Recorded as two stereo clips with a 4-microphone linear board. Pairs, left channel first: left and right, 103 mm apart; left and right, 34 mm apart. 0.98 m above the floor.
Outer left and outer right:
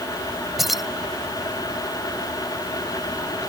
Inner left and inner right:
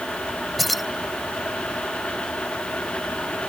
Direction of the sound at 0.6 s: Centre (ahead or behind).